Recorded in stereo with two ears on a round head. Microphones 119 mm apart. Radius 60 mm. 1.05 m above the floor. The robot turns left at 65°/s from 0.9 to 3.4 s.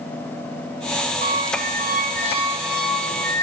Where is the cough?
No cough in this recording.